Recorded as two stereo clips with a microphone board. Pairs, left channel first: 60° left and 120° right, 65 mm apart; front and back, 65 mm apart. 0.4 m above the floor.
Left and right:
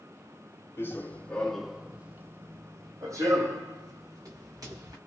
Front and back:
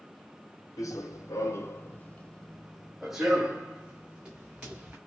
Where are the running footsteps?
15° left, 0.7 m; by 5.0 s 115° right, 1.7 m.